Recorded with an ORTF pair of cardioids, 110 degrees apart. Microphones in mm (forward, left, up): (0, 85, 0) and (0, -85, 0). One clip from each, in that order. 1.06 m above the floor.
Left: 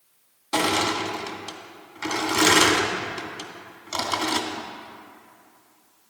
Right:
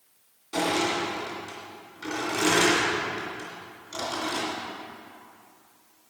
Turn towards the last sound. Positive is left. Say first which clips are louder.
# left 3 dB
turn(degrees=65)